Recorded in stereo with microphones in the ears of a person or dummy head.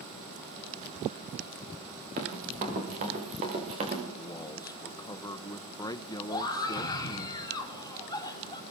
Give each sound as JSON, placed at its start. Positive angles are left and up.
{"t": 2.2, "sound": "running footsteps", "side_deg": -50, "distance_m": 8.5}
{"t": 4.2, "sound": "a man speaking", "side_deg": 20, "distance_m": 0.9}
{"t": 6.3, "sound": "a scream", "side_deg": 20, "distance_m": 5.0}